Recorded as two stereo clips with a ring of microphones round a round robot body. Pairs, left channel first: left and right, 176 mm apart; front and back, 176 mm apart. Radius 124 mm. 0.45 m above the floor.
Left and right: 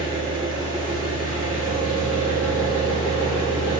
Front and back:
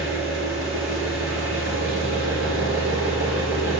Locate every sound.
0.0 s an engine running: 175° right, 2.5 m